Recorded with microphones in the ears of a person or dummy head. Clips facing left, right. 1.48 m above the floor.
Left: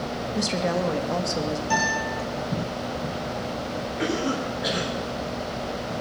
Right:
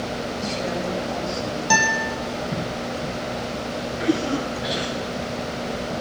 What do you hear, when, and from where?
0.3 s a woman speaking: 65° left (ahead or behind), 1.9 m
1.7 s a guitar: 80° right, 5 m
4.0 s a cough: 55° left (ahead or behind), 9 m